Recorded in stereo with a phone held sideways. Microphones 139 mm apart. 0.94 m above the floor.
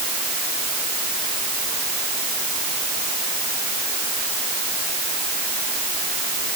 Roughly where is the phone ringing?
No phone ringing in this recording.